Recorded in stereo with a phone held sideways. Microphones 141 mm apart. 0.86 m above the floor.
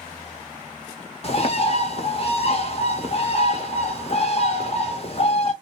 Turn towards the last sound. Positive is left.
turn(degrees=40)  # may be behind; listen again after turning